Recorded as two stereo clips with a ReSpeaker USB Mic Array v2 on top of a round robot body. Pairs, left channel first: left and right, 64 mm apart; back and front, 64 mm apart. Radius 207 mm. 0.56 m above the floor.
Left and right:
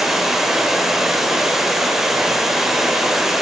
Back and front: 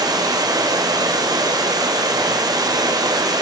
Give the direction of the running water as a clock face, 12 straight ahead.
12 o'clock.